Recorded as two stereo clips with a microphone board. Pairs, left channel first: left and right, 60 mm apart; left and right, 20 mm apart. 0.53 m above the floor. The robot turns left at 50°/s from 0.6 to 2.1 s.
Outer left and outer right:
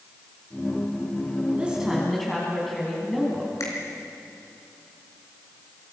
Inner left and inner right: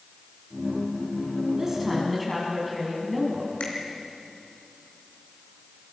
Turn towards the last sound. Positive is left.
turn(degrees=65)  # may be behind; listen again after turning